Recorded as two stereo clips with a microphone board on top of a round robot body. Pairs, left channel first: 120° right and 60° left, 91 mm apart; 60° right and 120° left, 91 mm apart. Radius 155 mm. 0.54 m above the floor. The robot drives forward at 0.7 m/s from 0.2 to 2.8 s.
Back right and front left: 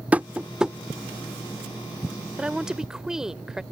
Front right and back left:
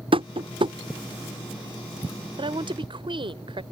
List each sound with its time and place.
0.1 s tapping: 135° left; by 0.8 s 145° left
2.4 s a woman speaking: 140° left; by 3.6 s 145° left